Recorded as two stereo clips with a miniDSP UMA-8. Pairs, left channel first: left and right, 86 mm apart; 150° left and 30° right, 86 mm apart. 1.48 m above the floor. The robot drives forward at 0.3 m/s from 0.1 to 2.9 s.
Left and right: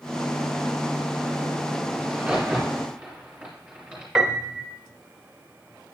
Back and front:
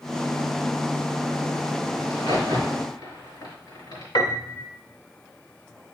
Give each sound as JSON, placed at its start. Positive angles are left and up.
{"t": 2.0, "sound": "a crack", "azimuth_deg": -175, "distance_m": 3.0}
{"t": 4.2, "sound": "a piano", "azimuth_deg": -175, "distance_m": 0.8}